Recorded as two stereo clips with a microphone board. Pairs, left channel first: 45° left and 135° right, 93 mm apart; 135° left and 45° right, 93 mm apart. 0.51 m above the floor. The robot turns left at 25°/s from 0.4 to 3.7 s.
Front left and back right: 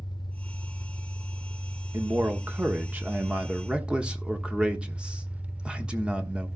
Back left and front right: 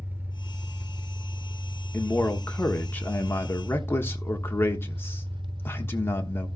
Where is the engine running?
20° left, 0.8 m; by 6.6 s 60° right, 0.8 m.